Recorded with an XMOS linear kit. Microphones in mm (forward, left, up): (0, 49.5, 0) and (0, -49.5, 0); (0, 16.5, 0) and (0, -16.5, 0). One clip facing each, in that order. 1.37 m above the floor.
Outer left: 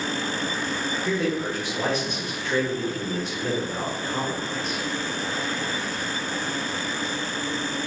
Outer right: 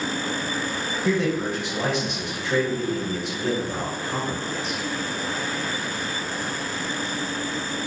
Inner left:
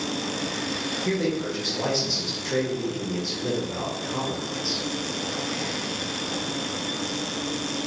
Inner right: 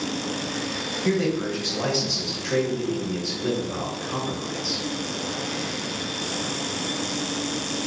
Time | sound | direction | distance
1.1 | a man speaking | 65° right (ahead or behind) | 0.9 m